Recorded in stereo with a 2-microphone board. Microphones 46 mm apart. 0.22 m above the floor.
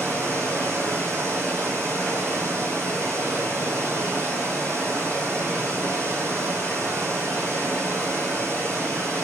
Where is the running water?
75° right (ahead or behind), 1.6 m.